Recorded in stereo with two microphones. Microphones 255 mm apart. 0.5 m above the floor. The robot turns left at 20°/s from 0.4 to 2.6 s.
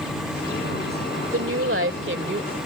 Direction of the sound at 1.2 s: 60° right (ahead or behind).